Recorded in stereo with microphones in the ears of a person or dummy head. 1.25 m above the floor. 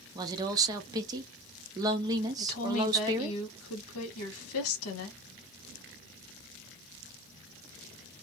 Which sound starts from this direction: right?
A woman speaking, at 0.1 s.